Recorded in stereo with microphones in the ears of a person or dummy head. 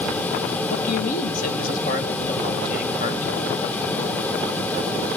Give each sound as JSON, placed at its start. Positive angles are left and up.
{"t": 0.7, "sound": "a man speaking", "side_deg": 45, "distance_m": 1.7}